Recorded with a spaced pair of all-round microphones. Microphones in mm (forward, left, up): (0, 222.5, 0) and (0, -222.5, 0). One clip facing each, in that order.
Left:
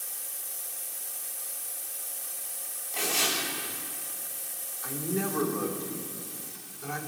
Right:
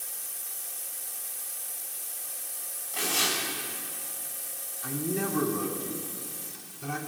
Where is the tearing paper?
30° right (ahead or behind), 7.5 m.